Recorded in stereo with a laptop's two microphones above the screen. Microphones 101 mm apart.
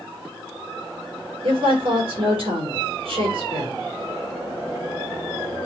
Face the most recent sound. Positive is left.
turn(degrees=-60)  # may be behind; listen again after turning